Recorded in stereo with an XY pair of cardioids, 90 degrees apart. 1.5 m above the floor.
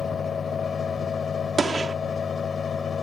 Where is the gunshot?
45° right.